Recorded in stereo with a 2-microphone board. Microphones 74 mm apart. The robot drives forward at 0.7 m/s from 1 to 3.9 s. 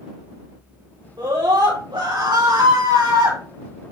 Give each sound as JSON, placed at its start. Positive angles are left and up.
{"t": 1.2, "sound": "a scream", "side_deg": -80, "distance_m": 5.5}